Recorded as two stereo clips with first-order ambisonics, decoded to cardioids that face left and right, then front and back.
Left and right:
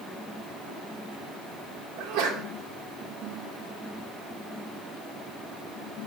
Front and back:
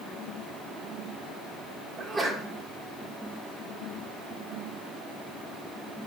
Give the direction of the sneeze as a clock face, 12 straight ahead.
3 o'clock.